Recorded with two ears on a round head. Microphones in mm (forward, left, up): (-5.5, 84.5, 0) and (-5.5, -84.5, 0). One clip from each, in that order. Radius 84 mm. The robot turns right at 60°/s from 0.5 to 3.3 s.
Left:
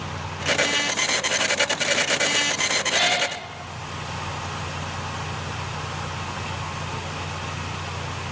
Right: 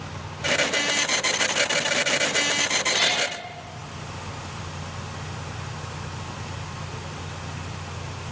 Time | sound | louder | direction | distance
2.9 | a cat meowing | left 2 dB | 15° left (ahead or behind) | 7 m